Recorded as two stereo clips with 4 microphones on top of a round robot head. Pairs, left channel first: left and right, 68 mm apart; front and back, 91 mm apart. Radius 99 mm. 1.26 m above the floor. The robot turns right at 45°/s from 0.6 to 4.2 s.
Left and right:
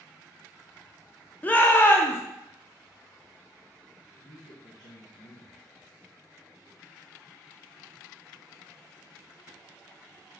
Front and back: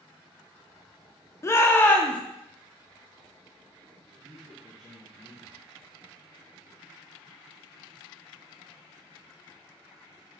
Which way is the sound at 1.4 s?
40° left.